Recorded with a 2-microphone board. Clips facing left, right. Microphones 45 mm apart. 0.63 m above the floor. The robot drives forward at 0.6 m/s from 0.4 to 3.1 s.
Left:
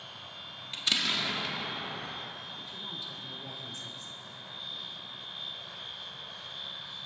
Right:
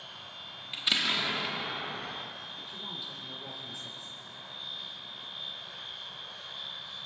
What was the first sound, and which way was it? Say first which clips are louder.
An explosion: right 1 dB; 10° right (ahead or behind).